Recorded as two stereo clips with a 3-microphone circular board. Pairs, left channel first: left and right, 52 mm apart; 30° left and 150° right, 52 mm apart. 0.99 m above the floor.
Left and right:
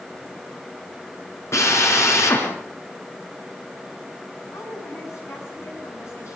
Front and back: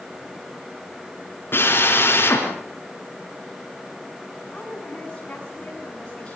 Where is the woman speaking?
100° left, 9.5 m.